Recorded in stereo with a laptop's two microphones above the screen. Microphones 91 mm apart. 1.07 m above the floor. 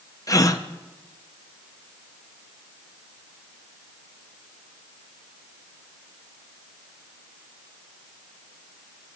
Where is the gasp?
40° left (ahead or behind), 0.5 m.